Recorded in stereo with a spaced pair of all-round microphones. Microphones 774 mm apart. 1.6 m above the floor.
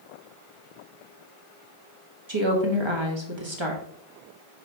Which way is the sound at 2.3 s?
35° right (ahead or behind).